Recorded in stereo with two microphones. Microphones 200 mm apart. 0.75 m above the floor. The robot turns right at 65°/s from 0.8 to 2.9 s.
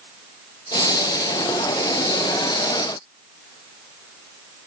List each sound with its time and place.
Only background noise.